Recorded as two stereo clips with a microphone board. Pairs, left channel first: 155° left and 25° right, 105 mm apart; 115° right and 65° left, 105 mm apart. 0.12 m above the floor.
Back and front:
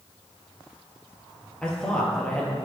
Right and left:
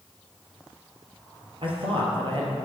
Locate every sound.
1.6 s a man speaking: 80° left, 2.5 m